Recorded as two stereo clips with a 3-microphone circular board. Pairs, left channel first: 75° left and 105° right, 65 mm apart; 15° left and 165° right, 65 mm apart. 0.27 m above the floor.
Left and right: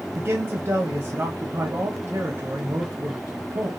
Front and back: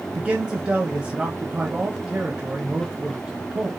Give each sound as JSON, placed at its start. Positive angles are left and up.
{"t": 0.1, "sound": "a man speaking", "azimuth_deg": -100, "distance_m": 1.2}